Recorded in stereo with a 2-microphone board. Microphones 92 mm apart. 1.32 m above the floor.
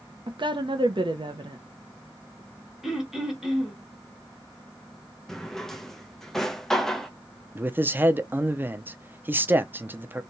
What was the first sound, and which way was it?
A woman speaking, 60° right (ahead or behind).